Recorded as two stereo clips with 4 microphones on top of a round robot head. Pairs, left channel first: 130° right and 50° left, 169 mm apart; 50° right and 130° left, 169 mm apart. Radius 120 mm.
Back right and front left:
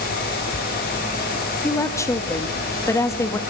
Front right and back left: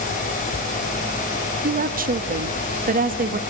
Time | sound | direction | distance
1.6 | a woman speaking | 160° left | 1.8 m